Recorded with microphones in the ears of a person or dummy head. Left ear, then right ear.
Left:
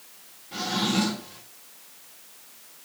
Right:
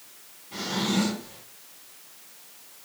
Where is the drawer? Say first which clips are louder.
Left 2 dB; 5° left (ahead or behind), 2 m.